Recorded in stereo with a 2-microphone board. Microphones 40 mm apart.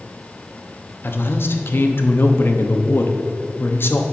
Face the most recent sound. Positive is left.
turn(degrees=60)  # may be behind; listen again after turning